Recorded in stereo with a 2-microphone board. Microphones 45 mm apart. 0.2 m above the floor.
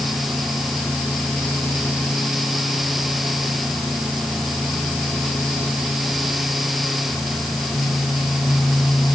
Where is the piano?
No piano in this recording.